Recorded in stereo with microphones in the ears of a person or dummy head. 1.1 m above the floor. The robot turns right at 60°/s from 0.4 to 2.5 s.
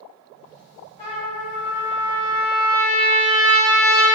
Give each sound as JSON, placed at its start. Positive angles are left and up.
{"t": 1.0, "sound": "a trumpet", "azimuth_deg": 45, "distance_m": 1.7}